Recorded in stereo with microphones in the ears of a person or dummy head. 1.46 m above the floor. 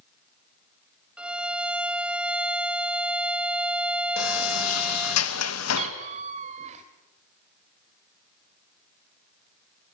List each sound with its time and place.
1.2 s a violin: centre (ahead or behind), 0.6 m
4.2 s a sliding door: 85° left, 1.9 m
5.8 s a cat meowing: 40° right (ahead or behind), 2.5 m